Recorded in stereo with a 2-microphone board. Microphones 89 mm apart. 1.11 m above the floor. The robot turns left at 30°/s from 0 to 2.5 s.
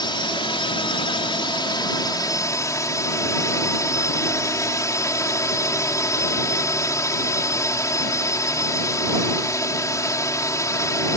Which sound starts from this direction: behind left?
A drone, at 0.0 s.